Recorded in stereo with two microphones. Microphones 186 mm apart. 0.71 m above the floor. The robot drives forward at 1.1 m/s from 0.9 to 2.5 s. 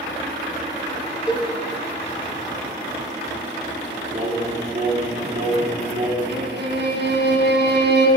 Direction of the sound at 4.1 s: 45° right (ahead or behind).